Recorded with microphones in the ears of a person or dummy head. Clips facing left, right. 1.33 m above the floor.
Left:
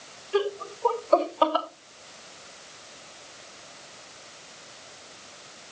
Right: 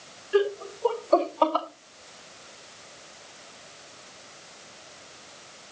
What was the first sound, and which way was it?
Laughter, 10° right (ahead or behind).